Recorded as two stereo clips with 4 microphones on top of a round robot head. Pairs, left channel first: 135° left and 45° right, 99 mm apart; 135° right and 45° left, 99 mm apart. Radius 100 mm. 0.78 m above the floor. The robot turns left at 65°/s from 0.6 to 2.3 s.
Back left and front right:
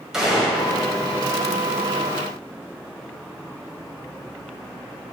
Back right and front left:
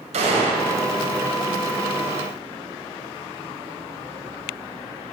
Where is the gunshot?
40° left, 1.6 m; by 0.7 s 35° left, 1.6 m.